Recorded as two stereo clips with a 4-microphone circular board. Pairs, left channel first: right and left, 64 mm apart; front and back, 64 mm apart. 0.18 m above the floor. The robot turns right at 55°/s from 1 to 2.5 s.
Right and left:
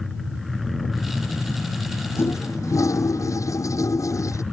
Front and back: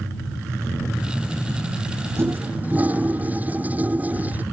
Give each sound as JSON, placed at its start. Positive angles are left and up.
{"t": 2.2, "sound": "a toilet flushing", "azimuth_deg": -135}